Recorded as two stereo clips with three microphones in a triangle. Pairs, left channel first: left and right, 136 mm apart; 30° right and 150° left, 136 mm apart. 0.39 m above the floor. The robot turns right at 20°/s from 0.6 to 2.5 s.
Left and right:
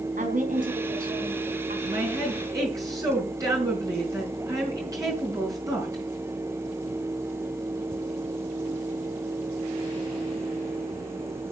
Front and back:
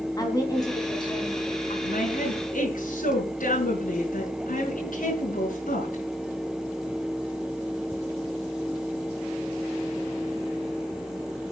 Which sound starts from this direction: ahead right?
A woman speaking, at 1.8 s.